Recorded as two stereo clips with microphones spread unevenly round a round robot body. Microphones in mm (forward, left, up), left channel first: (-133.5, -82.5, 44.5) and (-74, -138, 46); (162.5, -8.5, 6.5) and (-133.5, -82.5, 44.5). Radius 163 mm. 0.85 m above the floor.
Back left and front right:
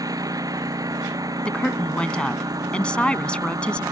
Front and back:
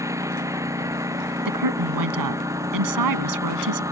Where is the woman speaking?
145° right.